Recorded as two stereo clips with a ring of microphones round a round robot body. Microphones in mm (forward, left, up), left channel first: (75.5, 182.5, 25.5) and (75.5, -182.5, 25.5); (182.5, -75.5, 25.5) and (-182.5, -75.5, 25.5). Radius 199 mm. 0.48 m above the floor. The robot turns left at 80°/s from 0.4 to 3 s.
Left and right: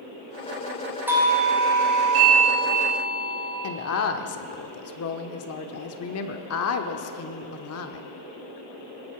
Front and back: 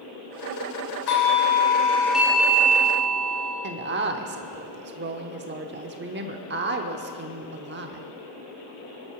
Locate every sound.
1.1 s a doorbell: 5° right, 2.5 m; by 3.5 s 160° right, 2.5 m
3.6 s a woman speaking: 125° left, 0.9 m